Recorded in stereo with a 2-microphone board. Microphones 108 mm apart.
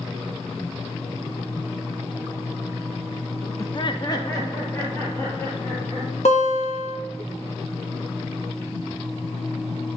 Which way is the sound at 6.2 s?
80° left.